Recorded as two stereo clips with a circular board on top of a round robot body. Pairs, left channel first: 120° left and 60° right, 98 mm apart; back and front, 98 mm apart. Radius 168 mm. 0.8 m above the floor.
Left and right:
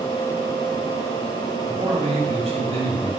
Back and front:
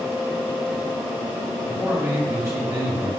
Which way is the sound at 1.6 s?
65° right.